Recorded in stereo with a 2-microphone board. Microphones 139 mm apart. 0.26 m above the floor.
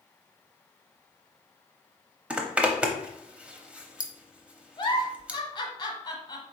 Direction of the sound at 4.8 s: 35° left (ahead or behind).